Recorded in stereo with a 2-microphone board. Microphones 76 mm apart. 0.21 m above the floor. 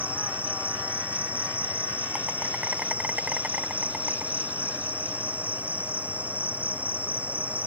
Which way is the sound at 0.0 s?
20° right (ahead or behind).